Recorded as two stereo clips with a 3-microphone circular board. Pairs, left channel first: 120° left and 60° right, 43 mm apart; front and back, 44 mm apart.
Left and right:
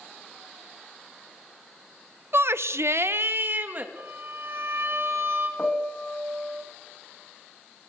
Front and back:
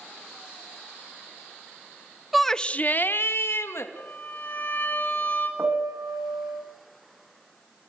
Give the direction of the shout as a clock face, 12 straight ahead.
3 o'clock.